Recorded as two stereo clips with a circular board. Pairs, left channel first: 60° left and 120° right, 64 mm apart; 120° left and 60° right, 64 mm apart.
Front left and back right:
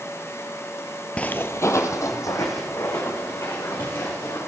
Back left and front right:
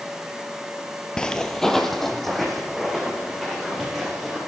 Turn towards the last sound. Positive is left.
turn(degrees=30)